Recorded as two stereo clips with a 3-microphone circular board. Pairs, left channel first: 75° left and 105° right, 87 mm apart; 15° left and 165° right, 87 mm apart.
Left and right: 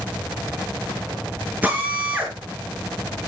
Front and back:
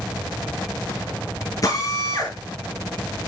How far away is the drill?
About 5 m.